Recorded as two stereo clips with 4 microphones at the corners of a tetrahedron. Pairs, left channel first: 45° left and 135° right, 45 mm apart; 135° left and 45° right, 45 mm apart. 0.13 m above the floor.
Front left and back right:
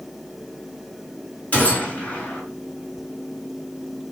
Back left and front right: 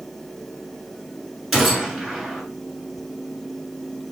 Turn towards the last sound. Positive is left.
turn(degrees=40)